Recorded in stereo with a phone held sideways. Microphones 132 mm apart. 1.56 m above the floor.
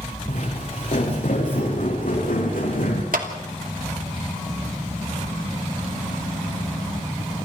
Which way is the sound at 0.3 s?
60° left (ahead or behind).